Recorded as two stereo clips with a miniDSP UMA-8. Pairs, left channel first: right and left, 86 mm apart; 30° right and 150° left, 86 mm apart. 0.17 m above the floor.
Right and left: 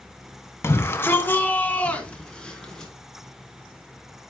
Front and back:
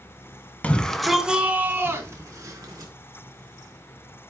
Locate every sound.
0.6 s a shout: 85° right, 1.1 m; by 2.9 s 170° right, 2 m